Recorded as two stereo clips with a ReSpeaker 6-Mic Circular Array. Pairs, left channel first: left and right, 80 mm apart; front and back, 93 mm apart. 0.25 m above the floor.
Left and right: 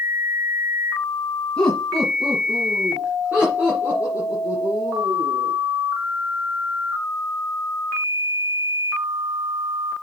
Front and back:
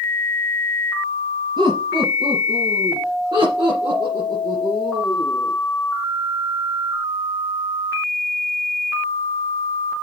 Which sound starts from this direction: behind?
Laughter, at 1.6 s.